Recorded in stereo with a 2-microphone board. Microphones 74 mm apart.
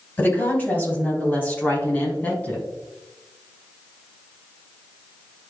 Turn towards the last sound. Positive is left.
turn(degrees=20)  # may be behind; listen again after turning